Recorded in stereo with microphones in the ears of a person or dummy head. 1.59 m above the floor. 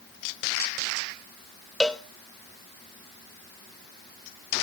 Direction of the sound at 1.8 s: Centre (ahead or behind).